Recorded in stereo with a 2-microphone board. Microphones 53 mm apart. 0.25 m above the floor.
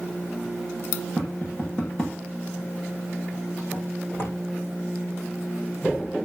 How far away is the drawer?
About 9.5 m.